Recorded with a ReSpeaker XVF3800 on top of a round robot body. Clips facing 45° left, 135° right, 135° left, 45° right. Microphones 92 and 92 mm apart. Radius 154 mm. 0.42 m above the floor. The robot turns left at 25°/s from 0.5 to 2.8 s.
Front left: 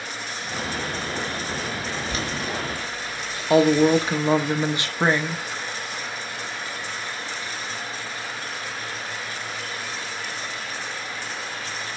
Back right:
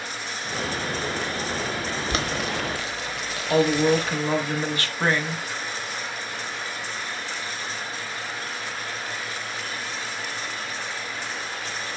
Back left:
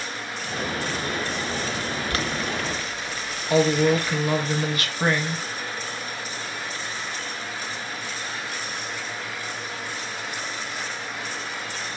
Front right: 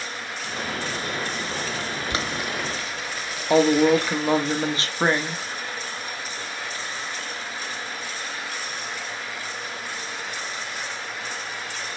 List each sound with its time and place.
2.1 s boiling: 115° right, 1.0 m; by 4.2 s 130° right, 1.0 m
3.5 s a woman speaking: 10° right, 1.3 m